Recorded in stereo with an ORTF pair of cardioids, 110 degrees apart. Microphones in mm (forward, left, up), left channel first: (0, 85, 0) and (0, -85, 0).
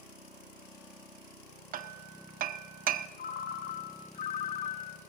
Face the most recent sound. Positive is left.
turn(degrees=55)